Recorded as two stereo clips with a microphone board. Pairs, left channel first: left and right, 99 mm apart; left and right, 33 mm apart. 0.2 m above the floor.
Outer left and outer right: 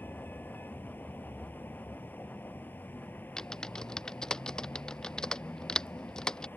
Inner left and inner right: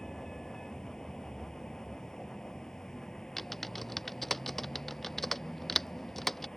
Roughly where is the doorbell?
I don't hear a doorbell.